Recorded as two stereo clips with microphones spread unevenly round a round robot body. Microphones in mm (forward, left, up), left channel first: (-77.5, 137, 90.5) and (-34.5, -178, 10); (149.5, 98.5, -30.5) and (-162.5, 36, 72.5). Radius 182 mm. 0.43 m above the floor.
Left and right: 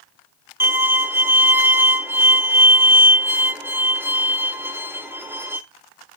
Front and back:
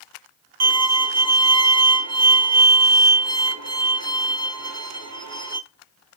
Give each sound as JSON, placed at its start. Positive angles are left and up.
{"t": 0.6, "sound": "a violin", "azimuth_deg": -130, "distance_m": 0.6}